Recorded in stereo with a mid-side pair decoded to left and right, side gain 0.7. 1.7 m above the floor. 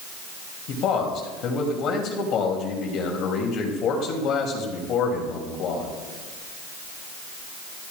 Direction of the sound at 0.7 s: 50° left.